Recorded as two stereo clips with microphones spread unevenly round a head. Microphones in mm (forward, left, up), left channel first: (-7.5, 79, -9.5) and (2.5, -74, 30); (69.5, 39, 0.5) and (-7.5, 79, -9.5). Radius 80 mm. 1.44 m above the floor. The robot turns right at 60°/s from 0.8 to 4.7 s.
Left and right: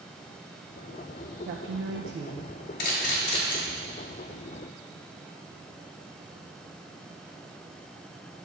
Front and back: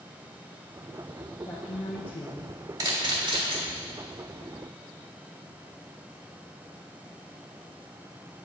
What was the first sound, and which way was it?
A woman speaking, 100° right.